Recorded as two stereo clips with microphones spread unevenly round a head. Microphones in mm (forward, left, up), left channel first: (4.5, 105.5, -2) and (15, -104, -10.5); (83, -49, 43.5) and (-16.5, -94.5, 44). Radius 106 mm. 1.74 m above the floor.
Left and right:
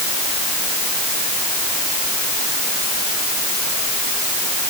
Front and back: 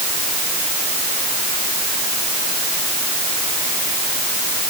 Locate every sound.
Only background noise.